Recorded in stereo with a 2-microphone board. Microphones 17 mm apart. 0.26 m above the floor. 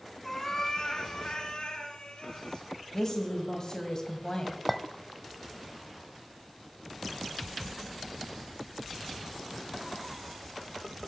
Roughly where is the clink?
Centre.